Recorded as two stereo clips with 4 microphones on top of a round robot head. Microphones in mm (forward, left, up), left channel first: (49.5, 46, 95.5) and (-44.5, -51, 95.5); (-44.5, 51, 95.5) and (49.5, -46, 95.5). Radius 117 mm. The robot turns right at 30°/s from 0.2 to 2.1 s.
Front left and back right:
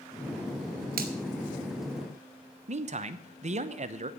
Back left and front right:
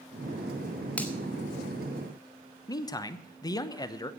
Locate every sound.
1.0 s a finger snap: 145° right, 1.8 m; by 1.1 s 140° right, 1.8 m
2.7 s a man speaking: 165° right, 1.0 m